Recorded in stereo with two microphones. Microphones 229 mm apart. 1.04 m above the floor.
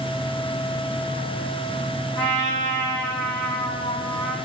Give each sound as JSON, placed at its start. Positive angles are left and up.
{"t": 2.2, "sound": "a trumpet", "side_deg": 25, "distance_m": 1.9}